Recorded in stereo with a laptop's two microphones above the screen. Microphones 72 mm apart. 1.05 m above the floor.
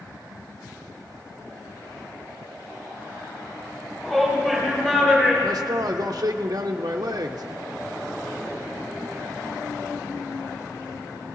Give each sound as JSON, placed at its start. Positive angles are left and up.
{"t": 4.0, "sound": "a shout", "side_deg": 5, "distance_m": 6.0}
{"t": 5.4, "sound": "a man speaking", "side_deg": -55, "distance_m": 0.5}